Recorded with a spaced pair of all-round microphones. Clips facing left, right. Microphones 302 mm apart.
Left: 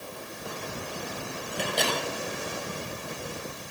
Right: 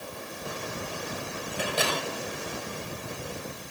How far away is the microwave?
About 6 m.